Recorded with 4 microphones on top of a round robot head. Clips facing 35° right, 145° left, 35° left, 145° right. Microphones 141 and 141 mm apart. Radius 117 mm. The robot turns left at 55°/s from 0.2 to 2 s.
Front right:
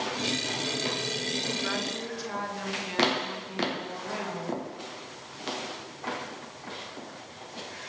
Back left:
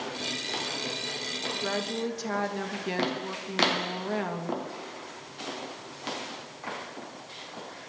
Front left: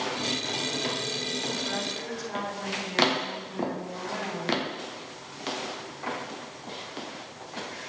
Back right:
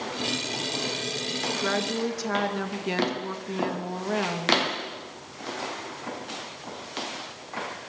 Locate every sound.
1.6 s a woman speaking: 150° right, 3 m; by 4.6 s 175° right, 3 m